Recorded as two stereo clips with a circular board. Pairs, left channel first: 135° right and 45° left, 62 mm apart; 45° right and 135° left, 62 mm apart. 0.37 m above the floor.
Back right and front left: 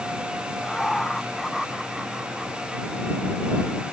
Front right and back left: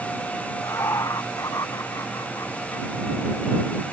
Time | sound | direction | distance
0.6 | laughter | 55° right | ?